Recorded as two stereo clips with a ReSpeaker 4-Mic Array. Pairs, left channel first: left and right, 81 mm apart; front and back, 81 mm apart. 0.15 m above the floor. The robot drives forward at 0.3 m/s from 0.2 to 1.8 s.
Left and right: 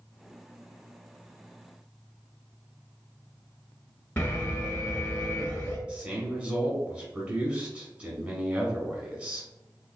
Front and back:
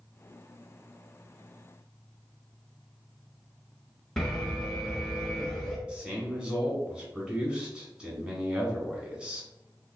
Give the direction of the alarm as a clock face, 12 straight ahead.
9 o'clock.